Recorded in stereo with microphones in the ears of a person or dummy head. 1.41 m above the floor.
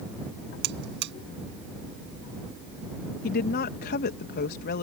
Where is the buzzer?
60° right (ahead or behind).